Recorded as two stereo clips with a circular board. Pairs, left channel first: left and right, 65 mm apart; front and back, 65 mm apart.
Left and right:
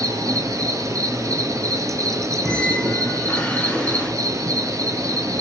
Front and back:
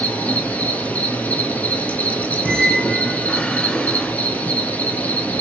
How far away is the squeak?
About 0.9 m.